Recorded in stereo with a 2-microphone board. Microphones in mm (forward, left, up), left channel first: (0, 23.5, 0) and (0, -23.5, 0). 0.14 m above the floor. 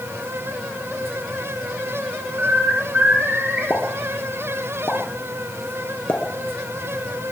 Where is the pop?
50° left (ahead or behind), 2 m.